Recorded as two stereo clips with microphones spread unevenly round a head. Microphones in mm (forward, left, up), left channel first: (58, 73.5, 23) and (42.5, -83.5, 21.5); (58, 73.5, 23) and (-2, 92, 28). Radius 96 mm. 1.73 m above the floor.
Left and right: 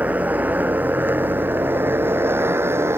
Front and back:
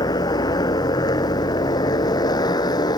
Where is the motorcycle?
15° right; by 3.0 s 20° right.